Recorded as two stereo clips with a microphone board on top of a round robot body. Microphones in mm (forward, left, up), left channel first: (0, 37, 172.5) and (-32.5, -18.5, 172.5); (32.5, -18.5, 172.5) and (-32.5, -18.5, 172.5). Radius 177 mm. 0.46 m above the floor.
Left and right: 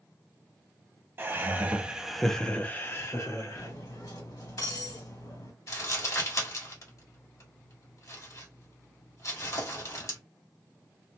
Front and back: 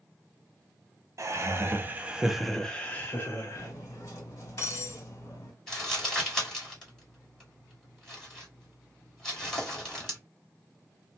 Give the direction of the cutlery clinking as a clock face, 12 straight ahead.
10 o'clock.